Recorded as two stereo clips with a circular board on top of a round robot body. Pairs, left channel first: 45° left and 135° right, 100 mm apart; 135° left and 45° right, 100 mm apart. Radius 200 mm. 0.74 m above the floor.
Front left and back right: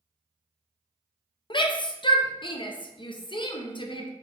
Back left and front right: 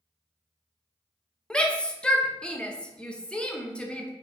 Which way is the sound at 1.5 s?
55° left.